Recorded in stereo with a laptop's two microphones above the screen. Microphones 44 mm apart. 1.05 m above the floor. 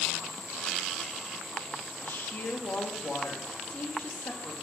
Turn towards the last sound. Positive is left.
turn(degrees=55)  # may be behind; listen again after turning